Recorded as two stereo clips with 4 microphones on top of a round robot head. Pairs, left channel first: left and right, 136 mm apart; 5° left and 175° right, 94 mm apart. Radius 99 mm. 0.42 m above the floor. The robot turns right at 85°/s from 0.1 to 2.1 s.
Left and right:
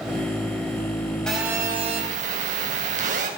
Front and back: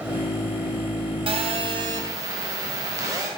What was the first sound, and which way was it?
A phone buzzing, 175° left.